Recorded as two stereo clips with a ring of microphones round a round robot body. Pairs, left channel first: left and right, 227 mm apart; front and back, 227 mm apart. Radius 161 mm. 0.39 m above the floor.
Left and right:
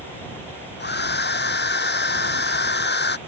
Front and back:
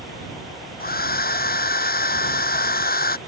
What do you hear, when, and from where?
0.8 s a hair dryer: 50° left